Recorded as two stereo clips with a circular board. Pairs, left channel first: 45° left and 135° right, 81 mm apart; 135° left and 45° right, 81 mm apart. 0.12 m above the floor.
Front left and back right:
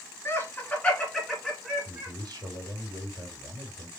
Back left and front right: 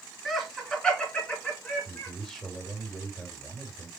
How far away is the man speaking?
About 2.5 m.